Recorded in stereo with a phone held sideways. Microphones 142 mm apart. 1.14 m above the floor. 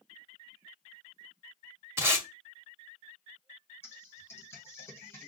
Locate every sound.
2.0 s tape being pulled: 15° right (ahead or behind), 0.8 m
3.8 s typing on a keyboard: 15° left (ahead or behind), 0.9 m